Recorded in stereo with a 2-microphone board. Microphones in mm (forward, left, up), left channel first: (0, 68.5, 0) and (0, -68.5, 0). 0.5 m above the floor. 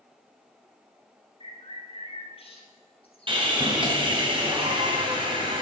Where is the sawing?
35° right (ahead or behind), 2.5 m.